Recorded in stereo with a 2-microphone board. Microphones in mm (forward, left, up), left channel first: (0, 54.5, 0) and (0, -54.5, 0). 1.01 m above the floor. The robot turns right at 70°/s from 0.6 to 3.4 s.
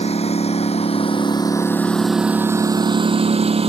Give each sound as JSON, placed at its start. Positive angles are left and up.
{"t": 0.0, "sound": "a lawn mower", "side_deg": 80}